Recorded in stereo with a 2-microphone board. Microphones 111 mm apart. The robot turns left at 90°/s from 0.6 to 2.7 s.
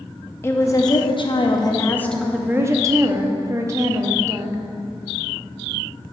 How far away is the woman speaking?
About 0.6 m.